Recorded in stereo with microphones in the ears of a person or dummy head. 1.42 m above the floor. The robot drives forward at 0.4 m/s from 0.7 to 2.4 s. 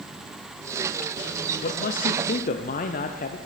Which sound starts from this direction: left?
A man speaking, at 1.6 s.